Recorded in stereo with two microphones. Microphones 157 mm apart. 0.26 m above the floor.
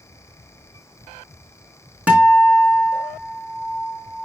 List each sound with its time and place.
2.1 s a guitar: 10° right (ahead or behind), 3.5 m